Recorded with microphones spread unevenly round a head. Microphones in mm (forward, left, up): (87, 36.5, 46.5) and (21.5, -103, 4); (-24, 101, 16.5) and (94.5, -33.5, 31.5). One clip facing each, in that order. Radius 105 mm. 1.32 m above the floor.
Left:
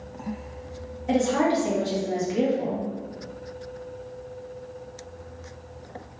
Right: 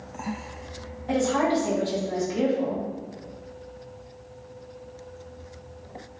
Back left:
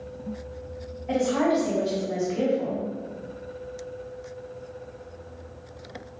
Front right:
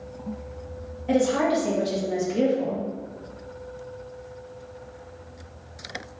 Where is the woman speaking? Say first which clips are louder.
Left 1 dB, front right 1 dB; straight ahead, 2 m.